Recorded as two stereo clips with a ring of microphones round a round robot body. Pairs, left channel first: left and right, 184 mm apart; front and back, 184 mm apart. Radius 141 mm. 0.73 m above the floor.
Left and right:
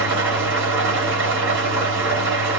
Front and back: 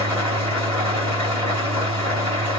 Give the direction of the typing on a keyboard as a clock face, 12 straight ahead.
No typing on a keyboard in this recording.